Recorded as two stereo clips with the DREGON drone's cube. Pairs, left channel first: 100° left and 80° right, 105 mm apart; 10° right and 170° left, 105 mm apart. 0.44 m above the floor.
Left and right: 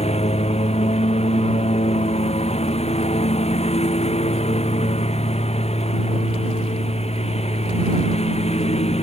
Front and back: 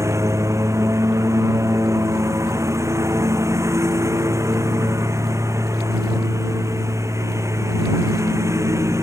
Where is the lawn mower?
110° left.